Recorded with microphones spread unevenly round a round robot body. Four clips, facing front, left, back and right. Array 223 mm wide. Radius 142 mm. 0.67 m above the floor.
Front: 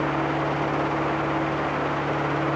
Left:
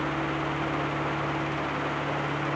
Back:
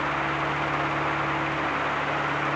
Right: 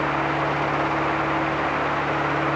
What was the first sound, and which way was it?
Only background noise.